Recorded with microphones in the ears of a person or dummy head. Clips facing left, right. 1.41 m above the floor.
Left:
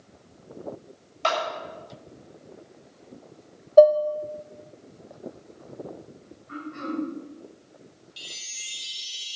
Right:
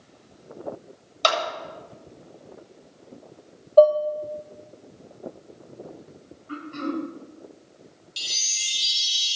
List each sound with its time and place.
1.2 s a clap: 50° right (ahead or behind), 7.5 m
3.8 s dishes clattering: 10° left (ahead or behind), 0.6 m
6.5 s throat clearing: 45° right (ahead or behind), 5.5 m
8.2 s a chime: 60° right (ahead or behind), 1.3 m